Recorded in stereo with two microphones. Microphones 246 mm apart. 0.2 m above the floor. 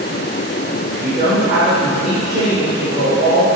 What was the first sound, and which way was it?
A woman speaking, 30° right (ahead or behind).